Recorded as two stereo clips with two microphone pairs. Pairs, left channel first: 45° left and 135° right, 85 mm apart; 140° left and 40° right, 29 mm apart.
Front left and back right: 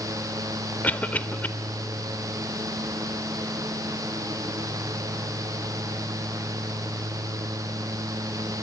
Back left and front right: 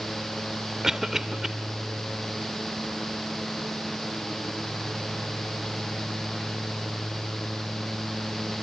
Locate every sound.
0.8 s a cough: 5° left, 0.8 m